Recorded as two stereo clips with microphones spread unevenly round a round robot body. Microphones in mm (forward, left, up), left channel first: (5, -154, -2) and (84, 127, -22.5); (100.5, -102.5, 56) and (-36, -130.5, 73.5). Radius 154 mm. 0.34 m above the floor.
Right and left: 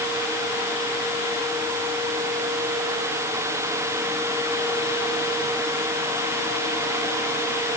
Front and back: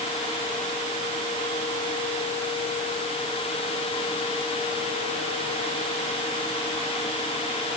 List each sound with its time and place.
Only background noise.